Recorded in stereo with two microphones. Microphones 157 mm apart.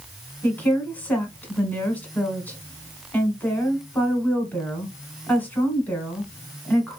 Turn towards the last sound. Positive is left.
turn(degrees=10)  # may be behind; listen again after turning